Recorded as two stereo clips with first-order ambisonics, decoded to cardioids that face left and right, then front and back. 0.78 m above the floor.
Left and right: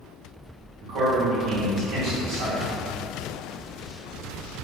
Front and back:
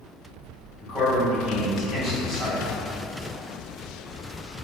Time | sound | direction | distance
0.8 | a man speaking | 80° right | 1.7 m